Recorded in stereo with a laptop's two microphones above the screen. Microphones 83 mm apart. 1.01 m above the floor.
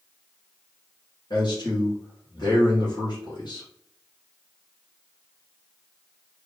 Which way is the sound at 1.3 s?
60° left (ahead or behind).